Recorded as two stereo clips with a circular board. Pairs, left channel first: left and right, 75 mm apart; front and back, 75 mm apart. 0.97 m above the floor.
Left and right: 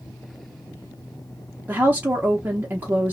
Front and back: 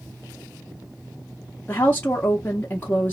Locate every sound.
1.7 s a woman speaking: 45° right, 0.6 m